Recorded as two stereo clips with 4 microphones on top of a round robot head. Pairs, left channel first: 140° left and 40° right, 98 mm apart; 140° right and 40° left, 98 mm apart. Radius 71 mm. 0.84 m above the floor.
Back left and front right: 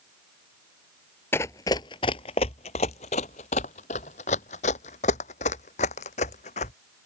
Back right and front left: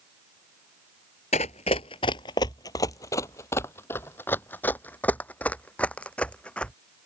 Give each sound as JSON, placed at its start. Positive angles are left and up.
{"t": 1.3, "sound": "running footsteps", "azimuth_deg": -150}